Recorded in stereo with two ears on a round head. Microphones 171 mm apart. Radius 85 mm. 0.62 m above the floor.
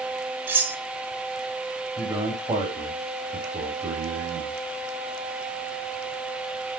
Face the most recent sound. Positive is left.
turn(degrees=-20)  # may be behind; listen again after turning